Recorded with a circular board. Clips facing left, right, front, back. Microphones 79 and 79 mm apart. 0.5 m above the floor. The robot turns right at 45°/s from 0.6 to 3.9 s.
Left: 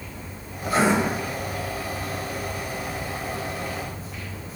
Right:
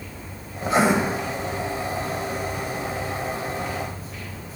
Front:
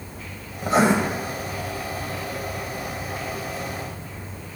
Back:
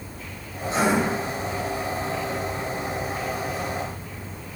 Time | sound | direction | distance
0.6 | writing | 30° right | 1.3 m